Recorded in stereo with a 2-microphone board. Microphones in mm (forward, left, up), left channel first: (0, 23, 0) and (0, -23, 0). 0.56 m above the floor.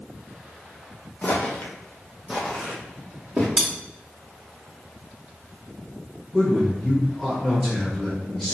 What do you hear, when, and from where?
1.2 s footsteps: 35° left (ahead or behind), 1.1 m; by 3.5 s 15° right (ahead or behind), 2.5 m
3.6 s cutlery clinking: 20° right (ahead or behind), 1.0 m
6.3 s a man speaking: centre (ahead or behind), 1.6 m